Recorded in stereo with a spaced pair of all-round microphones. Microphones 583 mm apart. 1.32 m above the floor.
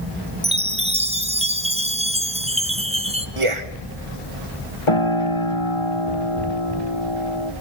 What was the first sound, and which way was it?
A chime, 10° right (ahead or behind).